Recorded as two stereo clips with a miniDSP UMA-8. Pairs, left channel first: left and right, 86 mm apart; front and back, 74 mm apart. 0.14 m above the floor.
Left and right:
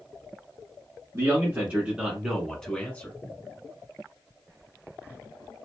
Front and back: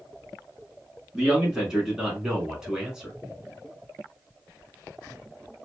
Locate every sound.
1.1 s a man speaking: 105° right, 1.2 m; by 3.1 s 110° left, 1.1 m